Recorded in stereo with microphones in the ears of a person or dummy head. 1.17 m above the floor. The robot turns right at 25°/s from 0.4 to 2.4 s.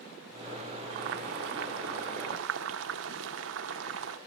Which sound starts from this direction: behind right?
Boiling, at 0.9 s.